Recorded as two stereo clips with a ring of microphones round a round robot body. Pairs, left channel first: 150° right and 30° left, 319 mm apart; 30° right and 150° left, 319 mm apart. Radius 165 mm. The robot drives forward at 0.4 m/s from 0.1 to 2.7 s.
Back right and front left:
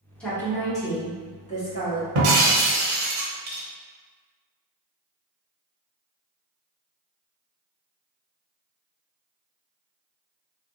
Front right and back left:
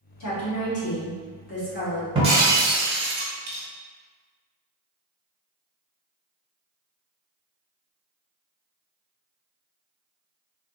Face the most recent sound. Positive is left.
turn(degrees=90)